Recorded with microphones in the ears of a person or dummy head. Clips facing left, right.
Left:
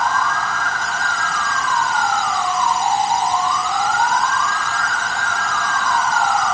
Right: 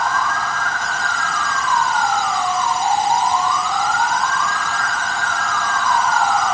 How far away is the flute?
No flute in this recording.